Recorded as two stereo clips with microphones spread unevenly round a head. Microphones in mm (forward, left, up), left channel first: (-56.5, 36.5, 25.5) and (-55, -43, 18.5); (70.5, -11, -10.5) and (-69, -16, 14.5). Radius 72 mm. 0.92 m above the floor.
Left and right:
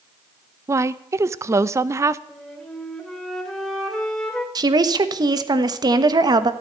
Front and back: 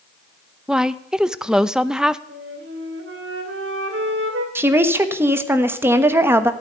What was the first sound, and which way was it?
A woman speaking, 80° right.